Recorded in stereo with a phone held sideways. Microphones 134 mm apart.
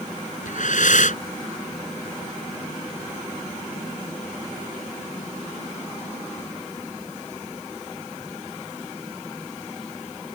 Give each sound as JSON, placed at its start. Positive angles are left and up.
{"t": 0.5, "sound": "breathing", "side_deg": 70}